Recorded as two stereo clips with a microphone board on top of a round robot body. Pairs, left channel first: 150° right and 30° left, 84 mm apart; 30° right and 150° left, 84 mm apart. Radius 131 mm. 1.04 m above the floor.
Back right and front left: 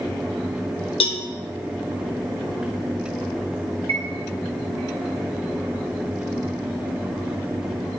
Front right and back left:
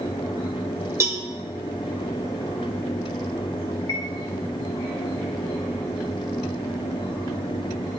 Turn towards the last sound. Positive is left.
turn(degrees=25)